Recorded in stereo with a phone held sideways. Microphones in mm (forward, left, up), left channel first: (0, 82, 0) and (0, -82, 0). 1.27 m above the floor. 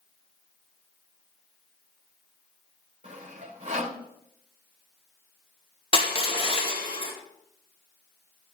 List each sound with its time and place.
3.0 s sawing: 45° right (ahead or behind), 2.5 m
5.9 s crushing: 35° left (ahead or behind), 2 m